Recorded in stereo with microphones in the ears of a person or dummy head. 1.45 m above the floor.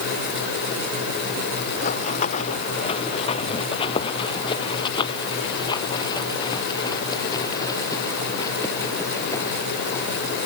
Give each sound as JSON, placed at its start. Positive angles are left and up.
{"t": 1.8, "sound": "running footsteps", "side_deg": 45}